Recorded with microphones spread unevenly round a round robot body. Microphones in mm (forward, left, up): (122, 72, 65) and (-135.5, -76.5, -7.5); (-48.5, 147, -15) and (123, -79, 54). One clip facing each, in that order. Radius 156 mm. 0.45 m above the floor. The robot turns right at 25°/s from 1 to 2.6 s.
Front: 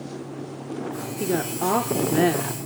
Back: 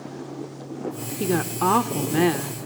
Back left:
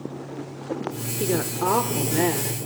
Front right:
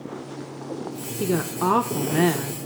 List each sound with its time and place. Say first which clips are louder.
1.2 s a woman speaking: back 1 dB, front right 1 dB; 150° right, 0.8 m; by 2.7 s 115° right, 0.8 m